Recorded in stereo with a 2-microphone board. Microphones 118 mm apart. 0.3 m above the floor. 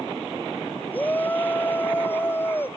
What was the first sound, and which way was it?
A shout, 15° left (ahead or behind).